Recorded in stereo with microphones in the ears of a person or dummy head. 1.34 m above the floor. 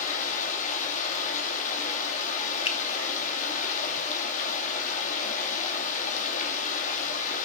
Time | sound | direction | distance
0.0 | running water | 50° left (ahead or behind) | 2.5 m
2.6 | a finger snap | 25° left (ahead or behind) | 1.4 m